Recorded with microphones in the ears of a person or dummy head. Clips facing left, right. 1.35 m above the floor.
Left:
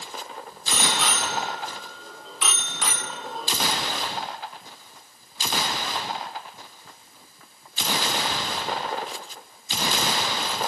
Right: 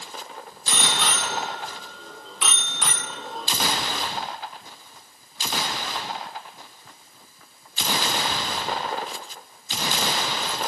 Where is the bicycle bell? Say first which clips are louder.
Left 1 dB; 5° left (ahead or behind), 3 m.